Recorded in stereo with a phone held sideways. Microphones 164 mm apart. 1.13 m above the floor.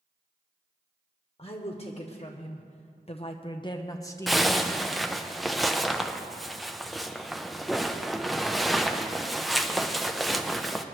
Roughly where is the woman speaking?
Left.